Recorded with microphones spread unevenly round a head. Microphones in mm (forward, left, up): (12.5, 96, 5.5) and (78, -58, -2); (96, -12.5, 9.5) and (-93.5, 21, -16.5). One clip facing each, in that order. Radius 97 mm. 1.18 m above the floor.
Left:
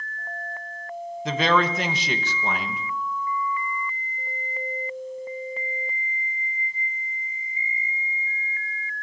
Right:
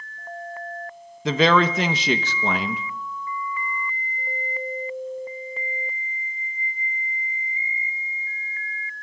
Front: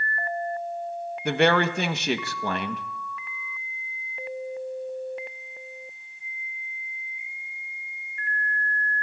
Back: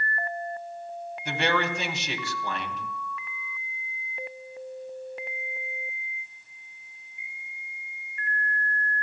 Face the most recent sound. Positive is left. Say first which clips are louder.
# right 4 dB, front 7 dB
turn(degrees=-55)